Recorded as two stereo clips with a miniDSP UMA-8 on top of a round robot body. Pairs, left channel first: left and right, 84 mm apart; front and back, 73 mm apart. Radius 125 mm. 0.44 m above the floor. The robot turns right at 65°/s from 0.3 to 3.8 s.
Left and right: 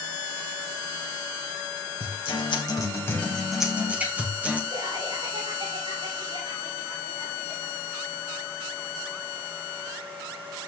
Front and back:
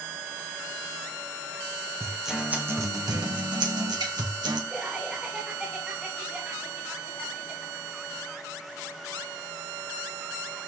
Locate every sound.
2.0 s a guitar: 80° left, 2.5 m; by 4.6 s 165° right, 2.5 m
4.7 s laughter: 105° right, 4.5 m